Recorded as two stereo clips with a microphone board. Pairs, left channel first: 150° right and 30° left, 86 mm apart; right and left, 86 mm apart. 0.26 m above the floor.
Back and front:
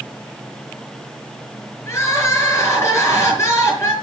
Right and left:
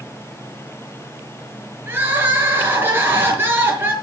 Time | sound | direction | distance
1.9 | crying | 155° left | 5.5 m